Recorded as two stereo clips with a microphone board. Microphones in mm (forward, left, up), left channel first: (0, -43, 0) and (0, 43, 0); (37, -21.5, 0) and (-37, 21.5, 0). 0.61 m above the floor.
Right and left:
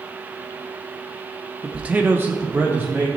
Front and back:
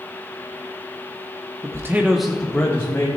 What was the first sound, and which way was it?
A man speaking, 165° left.